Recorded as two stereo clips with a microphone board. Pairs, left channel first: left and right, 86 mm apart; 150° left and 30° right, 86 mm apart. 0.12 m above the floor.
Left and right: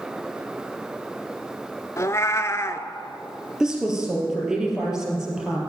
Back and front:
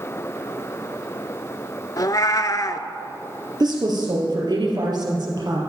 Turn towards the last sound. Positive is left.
turn(degrees=-5)